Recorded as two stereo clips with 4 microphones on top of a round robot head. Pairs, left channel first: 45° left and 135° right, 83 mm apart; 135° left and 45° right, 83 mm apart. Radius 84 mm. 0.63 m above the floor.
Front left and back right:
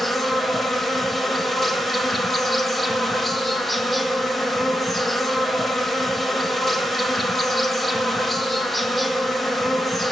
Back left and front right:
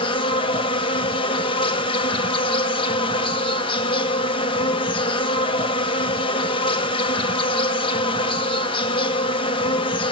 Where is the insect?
135° left, 1.3 m.